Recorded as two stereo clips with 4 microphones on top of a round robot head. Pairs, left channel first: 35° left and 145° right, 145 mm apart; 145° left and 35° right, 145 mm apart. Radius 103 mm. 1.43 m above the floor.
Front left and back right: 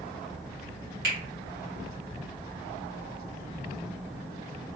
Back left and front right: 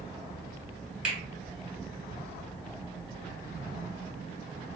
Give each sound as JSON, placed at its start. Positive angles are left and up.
{"t": 1.0, "sound": "a finger snap", "azimuth_deg": -120, "distance_m": 1.3}